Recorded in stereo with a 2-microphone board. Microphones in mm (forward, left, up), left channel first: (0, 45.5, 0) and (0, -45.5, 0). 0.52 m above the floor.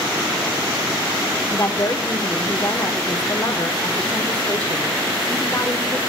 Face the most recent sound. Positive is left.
turn(degrees=25)  # may be behind; listen again after turning